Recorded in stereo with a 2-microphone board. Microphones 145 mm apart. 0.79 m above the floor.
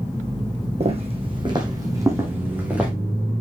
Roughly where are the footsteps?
Right.